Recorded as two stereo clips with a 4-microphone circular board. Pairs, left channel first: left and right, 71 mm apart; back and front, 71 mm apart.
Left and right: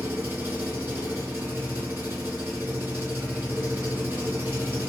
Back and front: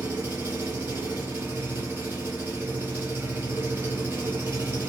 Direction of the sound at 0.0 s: 45° right.